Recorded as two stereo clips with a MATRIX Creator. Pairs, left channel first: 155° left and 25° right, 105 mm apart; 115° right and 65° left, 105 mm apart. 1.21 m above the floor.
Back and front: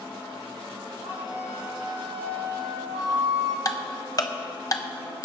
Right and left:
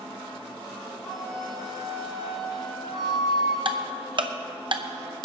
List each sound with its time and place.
1.0 s a flute: 25° right, 3 m
3.6 s ticking: 105° left, 0.8 m